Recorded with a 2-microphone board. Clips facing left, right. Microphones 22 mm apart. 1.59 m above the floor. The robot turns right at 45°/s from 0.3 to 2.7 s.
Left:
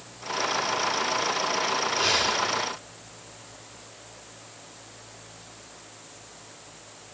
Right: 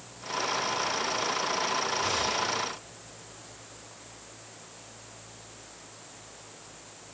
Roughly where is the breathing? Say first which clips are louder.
Left 5 dB; left.